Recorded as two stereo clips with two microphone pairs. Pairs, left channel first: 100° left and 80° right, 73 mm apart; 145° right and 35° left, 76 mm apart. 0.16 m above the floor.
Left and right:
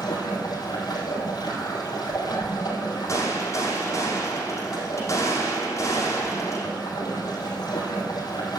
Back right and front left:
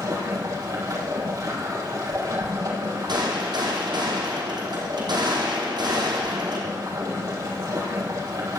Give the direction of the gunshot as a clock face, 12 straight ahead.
10 o'clock.